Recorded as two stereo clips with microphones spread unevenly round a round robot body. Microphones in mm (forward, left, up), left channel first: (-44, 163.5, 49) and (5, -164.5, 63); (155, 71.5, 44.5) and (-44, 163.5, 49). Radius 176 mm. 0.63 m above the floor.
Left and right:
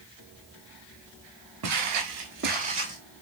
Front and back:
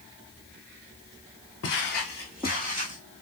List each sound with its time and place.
1.6 s footsteps: 50° right, 0.9 m; by 3.0 s 160° right, 1.0 m